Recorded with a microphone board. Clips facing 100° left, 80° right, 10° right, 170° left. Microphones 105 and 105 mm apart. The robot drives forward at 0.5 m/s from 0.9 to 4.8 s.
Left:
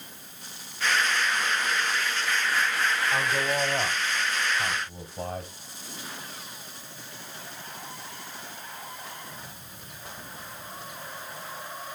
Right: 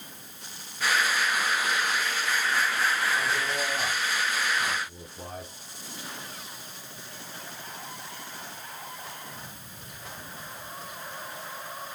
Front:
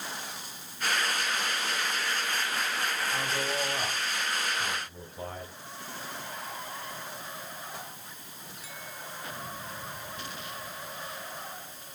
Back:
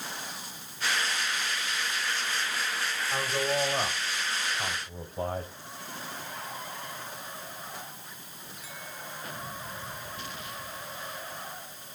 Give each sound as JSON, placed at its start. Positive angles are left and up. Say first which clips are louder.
{"t": 3.1, "sound": "a man speaking", "louder": "left 2 dB, back 2 dB", "azimuth_deg": 105, "distance_m": 2.0}